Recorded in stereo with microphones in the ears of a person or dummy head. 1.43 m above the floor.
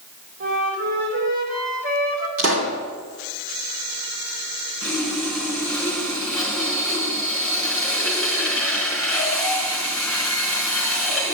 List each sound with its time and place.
0.4 s a flute: 80° right, 4 m
2.4 s a pop: 65° right (ahead or behind), 3 m
4.8 s sawing: 5° right (ahead or behind), 4.5 m